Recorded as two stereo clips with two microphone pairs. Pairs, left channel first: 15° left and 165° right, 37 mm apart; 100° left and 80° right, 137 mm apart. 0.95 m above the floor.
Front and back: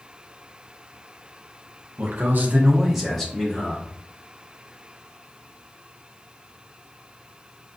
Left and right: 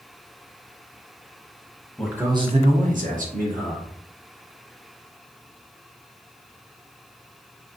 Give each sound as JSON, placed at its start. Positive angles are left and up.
{"t": 2.0, "sound": "a man speaking", "azimuth_deg": -170, "distance_m": 0.7}